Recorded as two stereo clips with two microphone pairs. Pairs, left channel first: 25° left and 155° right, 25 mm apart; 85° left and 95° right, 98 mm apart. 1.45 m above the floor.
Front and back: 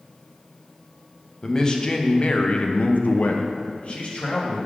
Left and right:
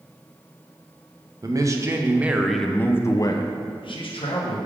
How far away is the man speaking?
About 0.9 m.